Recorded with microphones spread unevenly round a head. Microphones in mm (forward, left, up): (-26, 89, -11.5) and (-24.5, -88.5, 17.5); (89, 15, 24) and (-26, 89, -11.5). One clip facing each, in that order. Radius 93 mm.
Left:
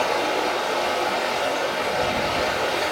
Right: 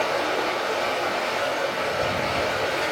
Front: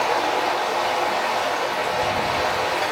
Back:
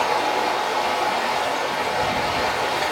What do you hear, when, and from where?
0.0 s running water: 40° left, 1.4 m